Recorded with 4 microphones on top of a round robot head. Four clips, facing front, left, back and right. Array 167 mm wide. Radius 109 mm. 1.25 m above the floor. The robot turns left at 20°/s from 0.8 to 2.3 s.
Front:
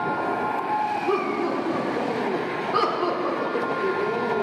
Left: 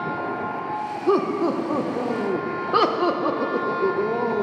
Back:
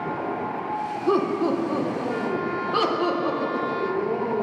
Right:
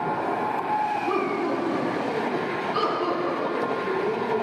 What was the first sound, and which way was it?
Laughter, 125° left.